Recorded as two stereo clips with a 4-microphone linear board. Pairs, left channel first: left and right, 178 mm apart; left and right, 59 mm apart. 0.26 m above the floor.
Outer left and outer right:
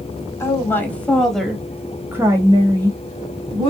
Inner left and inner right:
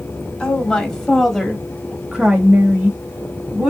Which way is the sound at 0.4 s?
15° left (ahead or behind).